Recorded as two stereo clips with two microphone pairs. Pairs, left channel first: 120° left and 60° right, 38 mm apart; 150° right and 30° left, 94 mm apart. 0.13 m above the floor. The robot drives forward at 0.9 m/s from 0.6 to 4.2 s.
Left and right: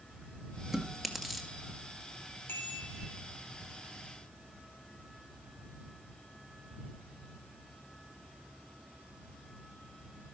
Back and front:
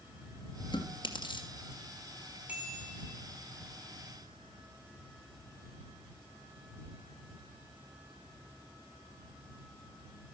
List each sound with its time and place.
0.7 s chewing: 140° right, 2.5 m; by 1.5 s 150° right, 3 m
2.5 s a bicycle bell: 105° left, 3 m; by 3.2 s 115° left, 3 m